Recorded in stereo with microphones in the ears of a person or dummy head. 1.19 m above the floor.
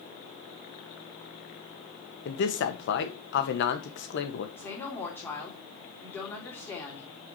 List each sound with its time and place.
2.2 s a man speaking: 60° left (ahead or behind), 1.4 m
4.6 s a woman speaking: 10° left (ahead or behind), 3 m